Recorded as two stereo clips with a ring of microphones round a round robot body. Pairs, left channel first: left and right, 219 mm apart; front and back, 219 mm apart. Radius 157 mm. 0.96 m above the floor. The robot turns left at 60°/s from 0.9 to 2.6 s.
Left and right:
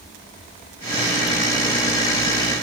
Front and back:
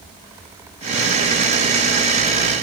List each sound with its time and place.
Only background noise.